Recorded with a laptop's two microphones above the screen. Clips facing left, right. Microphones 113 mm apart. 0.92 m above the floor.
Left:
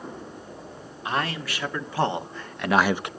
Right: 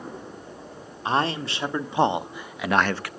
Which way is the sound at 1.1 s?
30° right (ahead or behind).